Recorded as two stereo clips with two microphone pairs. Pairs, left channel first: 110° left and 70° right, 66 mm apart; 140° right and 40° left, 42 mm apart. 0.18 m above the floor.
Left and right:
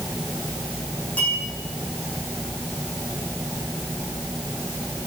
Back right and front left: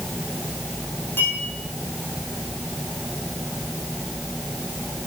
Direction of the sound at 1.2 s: Straight behind.